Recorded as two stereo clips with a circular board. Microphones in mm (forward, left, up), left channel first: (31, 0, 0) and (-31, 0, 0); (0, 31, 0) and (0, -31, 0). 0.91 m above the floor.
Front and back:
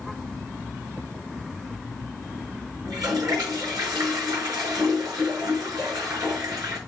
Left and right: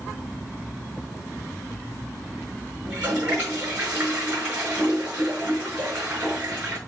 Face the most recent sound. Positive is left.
turn(degrees=-155)